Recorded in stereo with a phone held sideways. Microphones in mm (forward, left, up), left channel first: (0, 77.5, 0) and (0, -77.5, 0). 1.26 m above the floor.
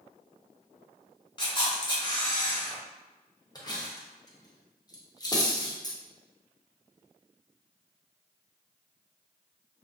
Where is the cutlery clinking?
25° left (ahead or behind), 0.6 m.